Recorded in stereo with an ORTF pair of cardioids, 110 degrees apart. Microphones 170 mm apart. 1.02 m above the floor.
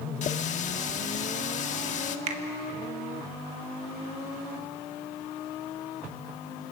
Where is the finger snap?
45° right, 1.8 m.